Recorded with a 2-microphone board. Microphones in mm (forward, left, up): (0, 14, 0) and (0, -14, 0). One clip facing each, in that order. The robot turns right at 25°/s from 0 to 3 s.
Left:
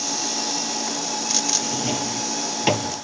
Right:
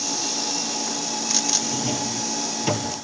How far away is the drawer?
About 1.4 m.